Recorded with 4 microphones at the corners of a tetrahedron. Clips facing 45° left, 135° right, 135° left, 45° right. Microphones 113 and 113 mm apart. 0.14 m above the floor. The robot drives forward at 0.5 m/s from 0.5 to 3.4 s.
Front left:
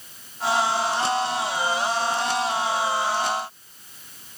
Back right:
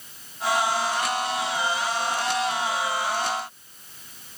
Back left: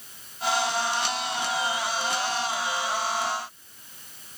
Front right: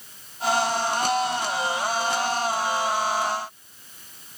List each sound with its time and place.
Only background noise.